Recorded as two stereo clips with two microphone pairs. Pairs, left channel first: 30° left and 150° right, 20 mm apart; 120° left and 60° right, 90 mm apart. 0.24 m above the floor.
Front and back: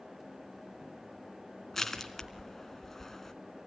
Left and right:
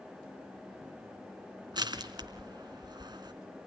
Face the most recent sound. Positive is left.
turn(degrees=-40)